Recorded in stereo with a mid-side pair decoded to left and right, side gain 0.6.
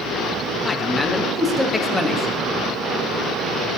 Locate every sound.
0.7 s a man speaking: 10° left, 1.2 m